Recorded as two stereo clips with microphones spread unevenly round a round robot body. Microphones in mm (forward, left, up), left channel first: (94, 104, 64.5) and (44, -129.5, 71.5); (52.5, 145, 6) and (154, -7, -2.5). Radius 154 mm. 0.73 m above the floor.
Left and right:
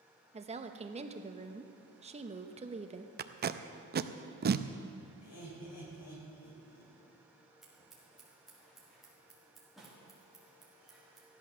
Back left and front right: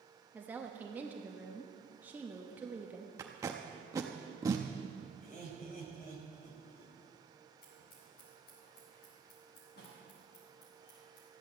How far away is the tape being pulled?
About 0.6 m.